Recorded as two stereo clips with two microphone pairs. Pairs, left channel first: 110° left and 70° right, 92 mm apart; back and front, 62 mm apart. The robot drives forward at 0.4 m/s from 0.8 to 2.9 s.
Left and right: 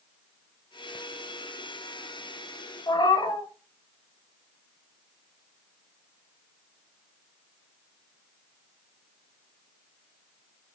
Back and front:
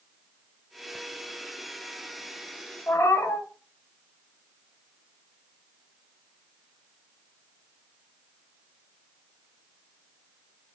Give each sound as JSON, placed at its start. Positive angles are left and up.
{"t": 2.9, "sound": "a cat meowing", "azimuth_deg": 140, "distance_m": 0.6}